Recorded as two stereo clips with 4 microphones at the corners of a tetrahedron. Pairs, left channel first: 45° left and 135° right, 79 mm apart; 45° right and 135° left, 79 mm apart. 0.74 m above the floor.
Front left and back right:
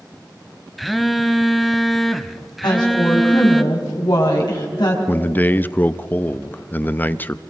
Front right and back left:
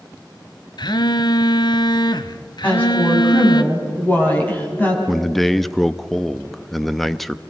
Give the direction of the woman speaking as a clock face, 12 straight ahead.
11 o'clock.